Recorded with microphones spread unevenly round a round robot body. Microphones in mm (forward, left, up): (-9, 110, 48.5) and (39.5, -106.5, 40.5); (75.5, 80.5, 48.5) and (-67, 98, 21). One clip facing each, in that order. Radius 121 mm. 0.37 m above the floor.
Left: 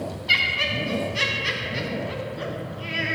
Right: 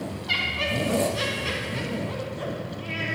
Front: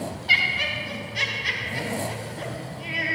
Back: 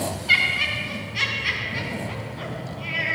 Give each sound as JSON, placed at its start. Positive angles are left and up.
{"t": 0.3, "sound": "laughter", "azimuth_deg": 45, "distance_m": 3.0}